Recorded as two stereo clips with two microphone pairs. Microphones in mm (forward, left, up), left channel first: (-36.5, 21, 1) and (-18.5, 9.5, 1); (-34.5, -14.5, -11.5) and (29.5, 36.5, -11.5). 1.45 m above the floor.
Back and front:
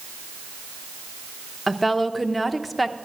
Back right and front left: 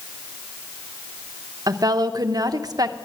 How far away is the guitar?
I don't hear a guitar.